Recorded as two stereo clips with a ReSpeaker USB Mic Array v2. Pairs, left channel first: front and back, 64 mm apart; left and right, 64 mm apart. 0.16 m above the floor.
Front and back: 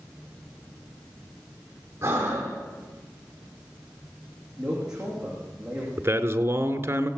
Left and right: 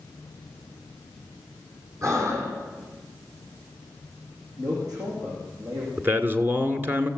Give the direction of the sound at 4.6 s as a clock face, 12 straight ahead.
3 o'clock.